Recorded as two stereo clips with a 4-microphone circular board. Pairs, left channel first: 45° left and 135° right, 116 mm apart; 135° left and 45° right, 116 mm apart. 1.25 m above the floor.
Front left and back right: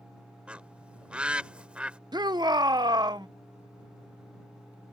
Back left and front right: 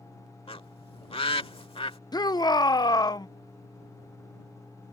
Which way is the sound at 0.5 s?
150° left.